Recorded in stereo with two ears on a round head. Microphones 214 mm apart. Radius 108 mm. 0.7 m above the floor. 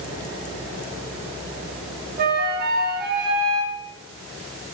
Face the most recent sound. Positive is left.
turn(degrees=-45)  # may be behind; listen again after turning